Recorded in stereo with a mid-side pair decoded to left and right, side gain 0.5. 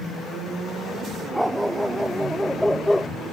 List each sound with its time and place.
1.3 s a dog barking: 5° right; by 3.1 s 5° left